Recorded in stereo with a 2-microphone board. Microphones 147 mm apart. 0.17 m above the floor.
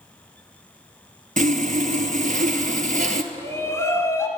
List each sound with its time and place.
1.4 s sawing: 75° right (ahead or behind), 0.7 m
3.3 s a shout: 20° left (ahead or behind), 1.4 m